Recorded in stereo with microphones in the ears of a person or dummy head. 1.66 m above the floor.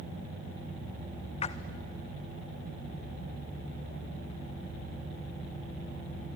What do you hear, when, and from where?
1.4 s a splash: 40° left (ahead or behind), 0.8 m